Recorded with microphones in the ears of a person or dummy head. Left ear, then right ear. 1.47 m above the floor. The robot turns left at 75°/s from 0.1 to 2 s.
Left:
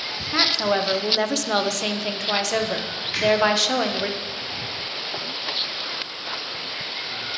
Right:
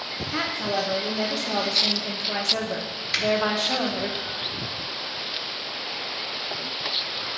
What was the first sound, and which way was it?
A woman speaking, 160° left.